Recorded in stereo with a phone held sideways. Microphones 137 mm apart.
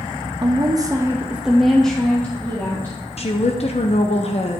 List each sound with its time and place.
0.4 s a woman speaking: 35° right (ahead or behind), 0.8 m; by 3.0 s 15° left (ahead or behind), 1.8 m
3.2 s a woman speaking: 50° left (ahead or behind), 0.8 m